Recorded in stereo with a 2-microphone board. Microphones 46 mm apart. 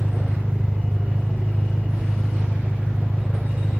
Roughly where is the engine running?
Right.